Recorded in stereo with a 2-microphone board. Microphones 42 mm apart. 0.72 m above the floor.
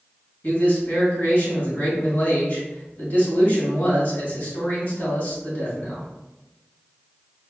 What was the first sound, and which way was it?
A man speaking, 45° left (ahead or behind).